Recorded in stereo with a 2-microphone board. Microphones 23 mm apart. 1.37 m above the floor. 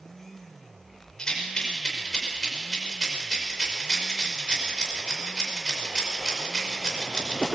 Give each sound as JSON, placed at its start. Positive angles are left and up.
{"t": 1.2, "sound": "a rattle", "side_deg": 35, "distance_m": 5.5}